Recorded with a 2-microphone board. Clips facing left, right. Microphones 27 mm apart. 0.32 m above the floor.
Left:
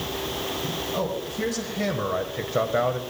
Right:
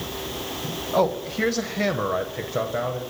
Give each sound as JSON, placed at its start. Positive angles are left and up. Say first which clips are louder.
{"t": 0.9, "sound": "a man speaking", "louder": "right 10 dB", "side_deg": -50, "distance_m": 1.6}